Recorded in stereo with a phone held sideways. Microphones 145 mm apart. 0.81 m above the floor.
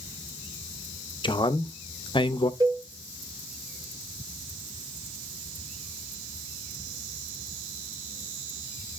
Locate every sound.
1.2 s a man speaking: 35° left (ahead or behind), 0.5 m
2.6 s a cowbell: 25° right (ahead or behind), 0.7 m